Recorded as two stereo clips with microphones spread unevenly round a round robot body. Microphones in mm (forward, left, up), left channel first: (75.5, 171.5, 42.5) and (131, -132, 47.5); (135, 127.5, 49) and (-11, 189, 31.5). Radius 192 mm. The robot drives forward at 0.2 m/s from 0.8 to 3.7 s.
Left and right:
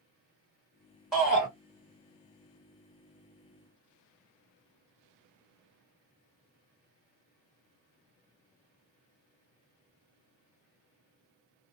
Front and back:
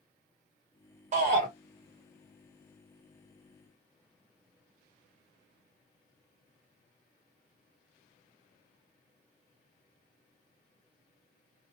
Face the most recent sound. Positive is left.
turn(degrees=-175)